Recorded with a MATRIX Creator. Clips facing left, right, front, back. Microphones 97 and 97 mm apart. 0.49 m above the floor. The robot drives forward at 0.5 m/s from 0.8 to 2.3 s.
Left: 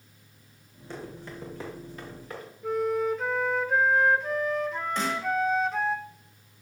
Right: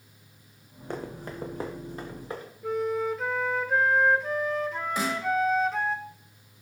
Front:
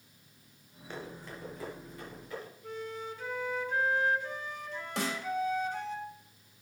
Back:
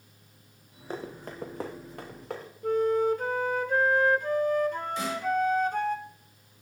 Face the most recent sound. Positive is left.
turn(degrees=-10)